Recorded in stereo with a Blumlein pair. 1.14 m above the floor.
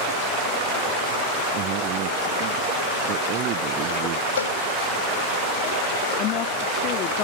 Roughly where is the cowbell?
Ahead left.